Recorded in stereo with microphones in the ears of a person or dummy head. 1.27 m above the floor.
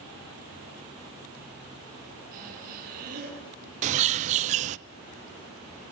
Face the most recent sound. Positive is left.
turn(degrees=-35)  # may be behind; listen again after turning